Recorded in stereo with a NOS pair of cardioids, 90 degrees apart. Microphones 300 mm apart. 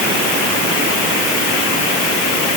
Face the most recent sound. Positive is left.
No sound to turn to.